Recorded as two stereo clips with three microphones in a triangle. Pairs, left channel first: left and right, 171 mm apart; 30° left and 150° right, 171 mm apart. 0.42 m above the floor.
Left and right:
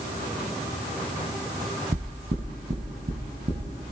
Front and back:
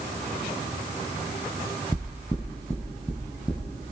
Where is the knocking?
55° right, 2 m.